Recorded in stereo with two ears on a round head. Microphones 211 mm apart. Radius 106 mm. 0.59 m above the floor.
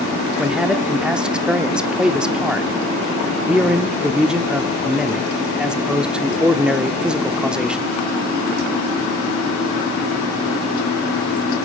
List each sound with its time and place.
0.4 s a man speaking: 5° right (ahead or behind), 0.9 m